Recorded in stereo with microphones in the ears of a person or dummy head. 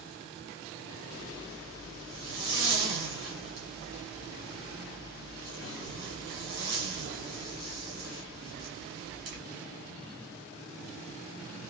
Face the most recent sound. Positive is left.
turn(degrees=-40)  # may be behind; listen again after turning